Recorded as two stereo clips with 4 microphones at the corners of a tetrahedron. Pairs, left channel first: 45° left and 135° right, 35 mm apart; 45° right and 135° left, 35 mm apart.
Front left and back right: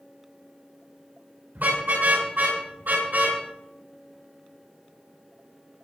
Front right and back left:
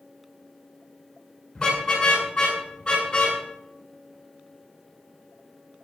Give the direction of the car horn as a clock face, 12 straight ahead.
4 o'clock.